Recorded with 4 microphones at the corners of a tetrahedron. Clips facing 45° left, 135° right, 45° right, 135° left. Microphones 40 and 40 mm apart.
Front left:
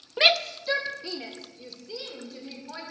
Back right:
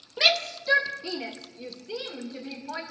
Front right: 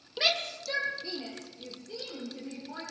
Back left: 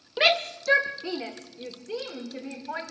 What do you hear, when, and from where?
0.2 s a shout: 100° left, 0.7 m; by 2.8 s 155° left, 4.5 m